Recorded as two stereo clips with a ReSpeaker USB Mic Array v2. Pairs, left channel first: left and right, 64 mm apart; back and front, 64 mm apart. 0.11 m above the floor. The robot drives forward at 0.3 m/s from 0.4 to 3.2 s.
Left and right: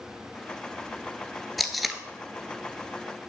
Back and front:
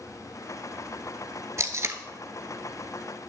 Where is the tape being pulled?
Straight ahead, 0.7 m.